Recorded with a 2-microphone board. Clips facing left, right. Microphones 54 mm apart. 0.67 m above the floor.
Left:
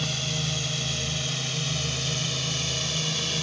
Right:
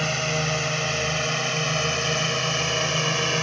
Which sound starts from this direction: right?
A drone, at 0.0 s.